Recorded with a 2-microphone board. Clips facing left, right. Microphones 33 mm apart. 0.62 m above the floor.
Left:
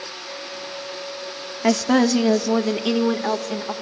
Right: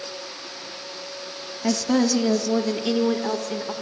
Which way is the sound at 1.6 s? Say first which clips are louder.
Left 4 dB; 35° left (ahead or behind).